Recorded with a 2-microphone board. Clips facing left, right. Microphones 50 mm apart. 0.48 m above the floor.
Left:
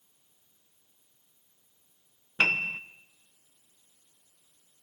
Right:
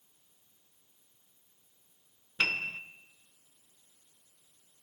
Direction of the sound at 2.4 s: 35° left (ahead or behind).